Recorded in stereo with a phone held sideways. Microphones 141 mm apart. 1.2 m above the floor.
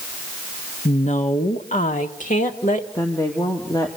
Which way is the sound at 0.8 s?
50° left (ahead or behind).